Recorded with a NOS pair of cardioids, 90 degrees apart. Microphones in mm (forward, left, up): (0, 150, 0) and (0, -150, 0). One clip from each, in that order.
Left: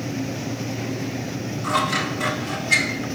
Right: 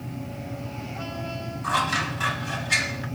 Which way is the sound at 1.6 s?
5° left.